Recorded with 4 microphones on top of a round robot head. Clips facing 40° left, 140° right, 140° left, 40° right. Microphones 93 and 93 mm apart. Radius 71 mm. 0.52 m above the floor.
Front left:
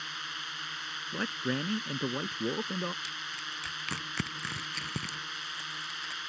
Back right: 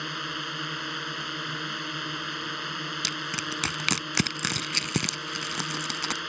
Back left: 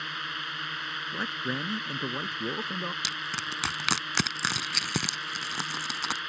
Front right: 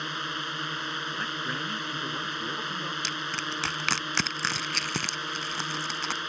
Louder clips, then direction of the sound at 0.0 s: Back right 7 dB, front right 3 dB; 100° right.